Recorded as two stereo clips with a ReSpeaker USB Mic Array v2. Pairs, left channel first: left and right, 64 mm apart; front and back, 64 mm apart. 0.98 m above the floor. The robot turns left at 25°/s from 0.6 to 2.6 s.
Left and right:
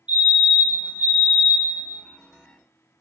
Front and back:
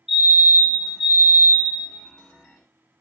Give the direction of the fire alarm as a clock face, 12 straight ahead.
3 o'clock.